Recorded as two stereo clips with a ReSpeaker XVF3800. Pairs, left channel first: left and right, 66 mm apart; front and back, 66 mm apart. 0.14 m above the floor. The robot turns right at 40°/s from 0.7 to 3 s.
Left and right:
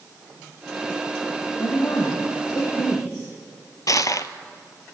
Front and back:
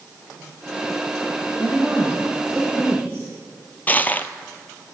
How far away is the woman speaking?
About 3.5 m.